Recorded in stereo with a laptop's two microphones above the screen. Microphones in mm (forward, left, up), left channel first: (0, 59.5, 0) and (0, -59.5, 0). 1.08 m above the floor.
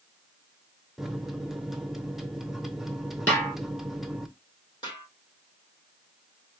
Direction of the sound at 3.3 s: 15° left (ahead or behind).